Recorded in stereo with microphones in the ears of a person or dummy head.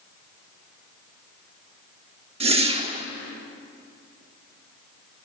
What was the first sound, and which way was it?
A whoosh, 30° right (ahead or behind).